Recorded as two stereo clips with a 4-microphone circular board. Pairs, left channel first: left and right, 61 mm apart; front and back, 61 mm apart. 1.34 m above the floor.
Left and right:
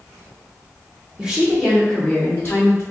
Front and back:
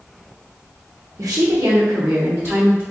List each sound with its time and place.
1.2 s a woman speaking: 160° right, 1.0 m; by 2.8 s 130° left, 1.2 m